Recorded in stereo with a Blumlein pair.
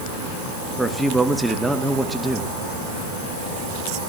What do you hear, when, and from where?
0.8 s a man speaking: 5° right, 2 m